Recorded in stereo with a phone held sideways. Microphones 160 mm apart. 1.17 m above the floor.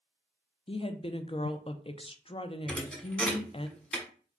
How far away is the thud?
About 1.0 m.